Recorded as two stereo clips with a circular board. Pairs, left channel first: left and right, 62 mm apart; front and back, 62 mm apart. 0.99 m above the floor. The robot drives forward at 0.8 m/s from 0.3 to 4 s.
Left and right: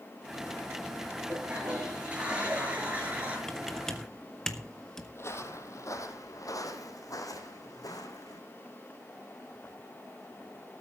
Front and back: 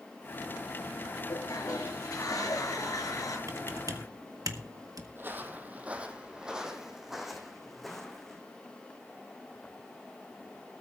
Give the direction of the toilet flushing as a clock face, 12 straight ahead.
1 o'clock.